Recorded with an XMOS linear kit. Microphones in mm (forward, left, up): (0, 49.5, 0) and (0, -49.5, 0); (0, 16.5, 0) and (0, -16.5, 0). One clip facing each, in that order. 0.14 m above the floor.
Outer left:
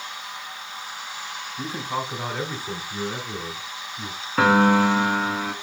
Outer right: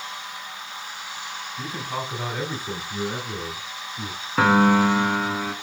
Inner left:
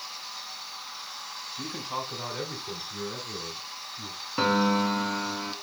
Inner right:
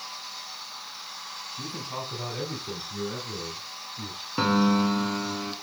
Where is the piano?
Centre (ahead or behind), 0.8 m.